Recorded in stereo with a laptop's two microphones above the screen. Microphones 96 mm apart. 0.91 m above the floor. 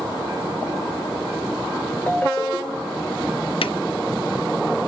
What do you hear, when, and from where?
2.1 s a ringtone: 20° left (ahead or behind), 1.2 m
3.6 s a drawer: 70° left (ahead or behind), 0.6 m